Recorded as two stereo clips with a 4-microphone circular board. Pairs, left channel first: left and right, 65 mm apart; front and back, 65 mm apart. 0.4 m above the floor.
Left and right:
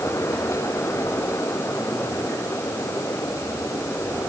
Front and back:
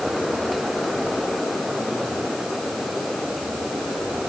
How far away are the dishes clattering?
I don't hear dishes clattering.